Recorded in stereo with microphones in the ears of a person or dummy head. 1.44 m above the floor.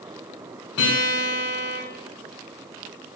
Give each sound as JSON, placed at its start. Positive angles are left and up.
{"t": 0.8, "sound": "a guitar", "side_deg": 85, "distance_m": 6.0}